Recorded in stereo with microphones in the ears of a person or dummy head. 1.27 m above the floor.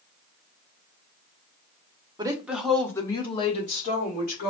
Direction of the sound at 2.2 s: 20° right (ahead or behind).